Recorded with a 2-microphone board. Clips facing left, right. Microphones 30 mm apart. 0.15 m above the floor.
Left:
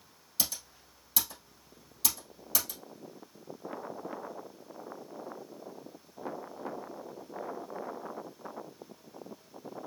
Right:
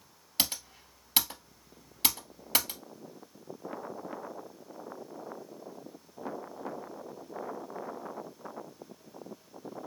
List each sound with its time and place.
0.4 s typing on a keyboard: 55° right (ahead or behind), 1.6 m